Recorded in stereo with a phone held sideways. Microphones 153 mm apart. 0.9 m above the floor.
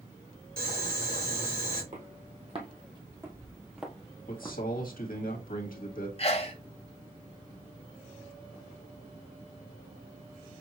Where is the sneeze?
40° left (ahead or behind), 1.3 m.